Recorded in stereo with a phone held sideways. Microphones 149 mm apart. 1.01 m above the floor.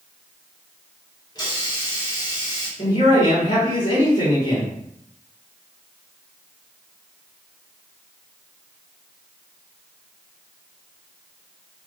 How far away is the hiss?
About 1.4 m.